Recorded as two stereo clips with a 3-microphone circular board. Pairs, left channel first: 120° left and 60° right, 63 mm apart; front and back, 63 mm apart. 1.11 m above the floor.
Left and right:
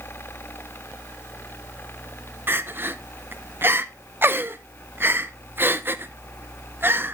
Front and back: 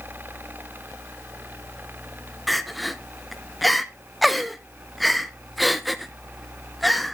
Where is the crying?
90° right, 0.7 m.